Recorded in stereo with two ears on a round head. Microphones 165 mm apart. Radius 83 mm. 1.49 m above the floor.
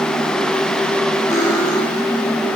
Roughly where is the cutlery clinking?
Centre.